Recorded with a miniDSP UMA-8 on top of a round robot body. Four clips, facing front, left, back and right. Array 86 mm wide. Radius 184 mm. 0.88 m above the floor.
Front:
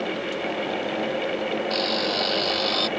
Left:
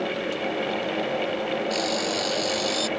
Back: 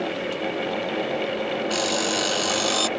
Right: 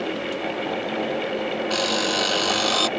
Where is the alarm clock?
105° right.